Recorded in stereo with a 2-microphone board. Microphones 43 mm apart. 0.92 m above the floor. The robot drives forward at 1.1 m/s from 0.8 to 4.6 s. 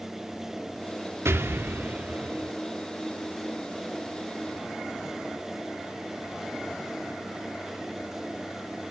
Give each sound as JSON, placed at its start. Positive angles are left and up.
{"t": 1.2, "sound": "an explosion", "side_deg": -80, "distance_m": 1.1}